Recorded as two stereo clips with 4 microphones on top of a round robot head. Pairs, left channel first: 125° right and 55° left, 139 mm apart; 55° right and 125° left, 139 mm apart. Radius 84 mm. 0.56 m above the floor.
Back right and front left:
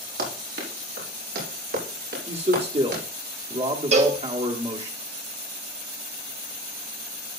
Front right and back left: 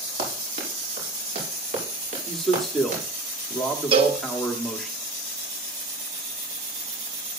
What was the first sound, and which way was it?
Running footsteps, 70° left.